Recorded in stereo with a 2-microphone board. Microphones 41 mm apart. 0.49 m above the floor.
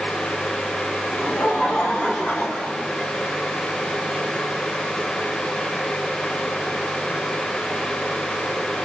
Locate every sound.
1.1 s laughter: 20° left (ahead or behind), 4 m; by 3.1 s 30° left (ahead or behind), 5 m